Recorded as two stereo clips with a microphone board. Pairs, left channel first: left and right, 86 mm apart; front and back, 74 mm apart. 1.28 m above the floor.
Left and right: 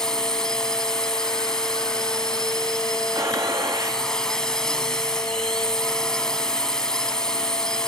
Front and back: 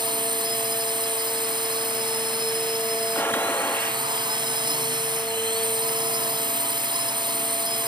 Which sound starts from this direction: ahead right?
A gunshot, at 3.1 s.